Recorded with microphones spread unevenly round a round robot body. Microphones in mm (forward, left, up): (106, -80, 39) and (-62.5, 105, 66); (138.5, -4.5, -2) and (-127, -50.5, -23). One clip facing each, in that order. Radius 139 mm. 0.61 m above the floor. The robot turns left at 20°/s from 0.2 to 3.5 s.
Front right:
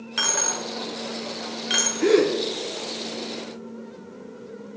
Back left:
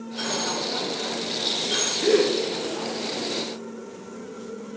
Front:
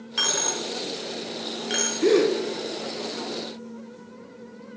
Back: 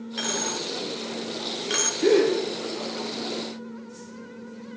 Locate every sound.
0.2 s a dropped coin: 60° right, 0.7 m; by 1.9 s 95° right, 0.7 m
2.0 s a gasp: 65° right, 1.2 m; by 2.3 s 70° right, 1.2 m